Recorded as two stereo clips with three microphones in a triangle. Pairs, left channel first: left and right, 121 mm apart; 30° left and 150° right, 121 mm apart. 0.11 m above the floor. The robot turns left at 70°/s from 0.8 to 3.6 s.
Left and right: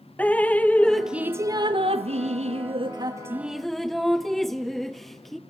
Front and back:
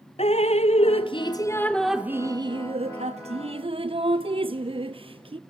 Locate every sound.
0.2 s dripping: 15° left, 0.9 m; by 5.4 s straight behind, 0.9 m